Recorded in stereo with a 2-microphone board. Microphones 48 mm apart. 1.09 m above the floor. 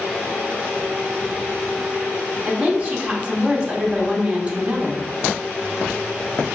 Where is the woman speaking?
25° right (ahead or behind), 0.9 m.